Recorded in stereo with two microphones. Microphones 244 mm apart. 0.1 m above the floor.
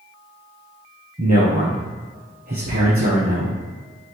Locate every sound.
1.2 s a man speaking: 40° right (ahead or behind), 2.0 m